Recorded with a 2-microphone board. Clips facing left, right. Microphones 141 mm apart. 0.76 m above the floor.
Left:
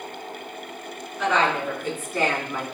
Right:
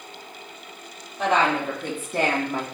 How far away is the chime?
No chime in this recording.